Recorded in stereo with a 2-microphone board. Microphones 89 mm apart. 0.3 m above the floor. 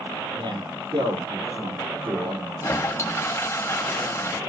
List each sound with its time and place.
0.3 s a man speaking: 65° right (ahead or behind), 7.5 m
2.6 s a toilet flushing: 35° left (ahead or behind), 0.9 m